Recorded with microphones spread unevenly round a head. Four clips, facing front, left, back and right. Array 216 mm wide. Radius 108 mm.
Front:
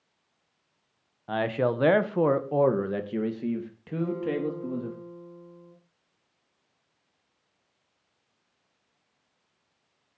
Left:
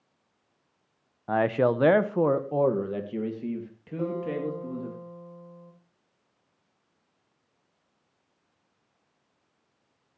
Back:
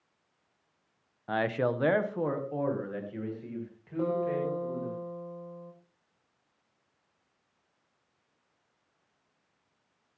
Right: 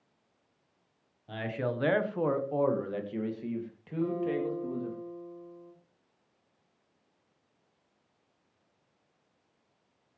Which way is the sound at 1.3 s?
90° left.